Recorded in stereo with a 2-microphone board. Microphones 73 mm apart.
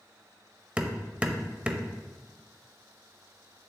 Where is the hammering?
15° right (ahead or behind), 0.7 m.